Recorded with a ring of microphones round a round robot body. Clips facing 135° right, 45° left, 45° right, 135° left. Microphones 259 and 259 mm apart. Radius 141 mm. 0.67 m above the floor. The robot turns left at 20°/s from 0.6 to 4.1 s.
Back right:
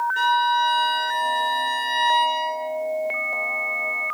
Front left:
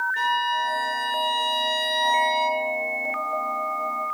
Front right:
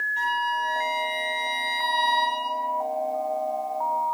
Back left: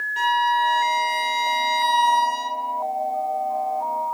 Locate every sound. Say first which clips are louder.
0.2 s a violin: back right 3 dB, back left 7 dB; 155° left, 1.6 m; by 2.6 s 110° left, 1.6 m